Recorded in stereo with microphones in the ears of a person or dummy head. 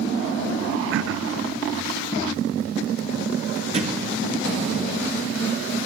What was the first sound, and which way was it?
Throat clearing, 65° right (ahead or behind).